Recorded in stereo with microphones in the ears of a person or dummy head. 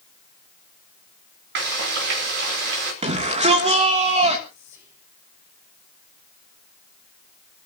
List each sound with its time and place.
1.6 s frying: 70° right (ahead or behind), 4 m
3.0 s a shout: 35° right (ahead or behind), 2.5 m
4.5 s whispering: 20° right (ahead or behind), 6.5 m